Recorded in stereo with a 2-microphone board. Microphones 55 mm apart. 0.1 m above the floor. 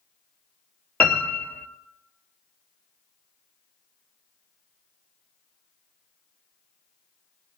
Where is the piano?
25° left (ahead or behind), 1.1 m.